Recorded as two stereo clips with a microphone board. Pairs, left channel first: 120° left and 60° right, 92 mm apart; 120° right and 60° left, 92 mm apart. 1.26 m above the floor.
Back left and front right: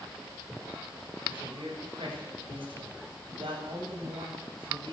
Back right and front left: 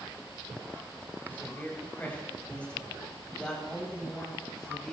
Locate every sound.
1.3 s a man speaking: 50° right, 9 m; by 4.9 s 35° right, 9.5 m